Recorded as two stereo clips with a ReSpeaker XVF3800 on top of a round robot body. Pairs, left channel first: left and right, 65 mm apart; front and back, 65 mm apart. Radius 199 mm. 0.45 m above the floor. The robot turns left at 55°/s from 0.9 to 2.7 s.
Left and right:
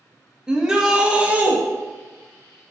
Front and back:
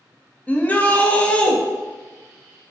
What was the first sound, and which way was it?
A shout, 25° right.